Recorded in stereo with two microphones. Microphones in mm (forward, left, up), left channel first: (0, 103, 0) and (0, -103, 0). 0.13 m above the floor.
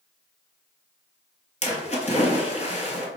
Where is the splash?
30° left (ahead or behind), 0.7 m.